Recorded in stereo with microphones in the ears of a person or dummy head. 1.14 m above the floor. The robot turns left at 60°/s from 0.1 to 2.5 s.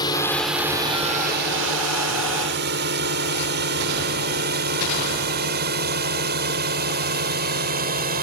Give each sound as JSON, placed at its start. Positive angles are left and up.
{"t": 0.0, "sound": "a drone", "side_deg": 25}